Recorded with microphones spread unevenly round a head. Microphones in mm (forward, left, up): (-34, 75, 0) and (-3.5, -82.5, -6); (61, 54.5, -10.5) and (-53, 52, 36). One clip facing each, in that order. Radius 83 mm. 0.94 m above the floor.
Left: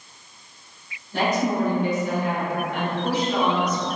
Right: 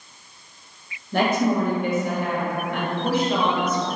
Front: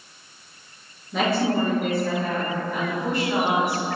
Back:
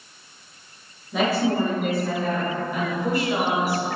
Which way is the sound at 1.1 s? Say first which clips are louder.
Right 2 dB, back 1 dB; 75° right.